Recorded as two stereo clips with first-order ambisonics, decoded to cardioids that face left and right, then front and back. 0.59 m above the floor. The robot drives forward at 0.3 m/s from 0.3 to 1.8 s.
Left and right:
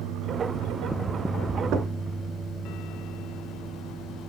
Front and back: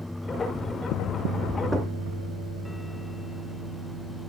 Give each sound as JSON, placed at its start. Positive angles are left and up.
{"t": 1.7, "sound": "knocking", "azimuth_deg": -100, "distance_m": 0.7}